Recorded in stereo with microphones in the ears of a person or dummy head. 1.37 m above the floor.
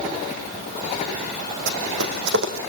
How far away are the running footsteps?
About 4 m.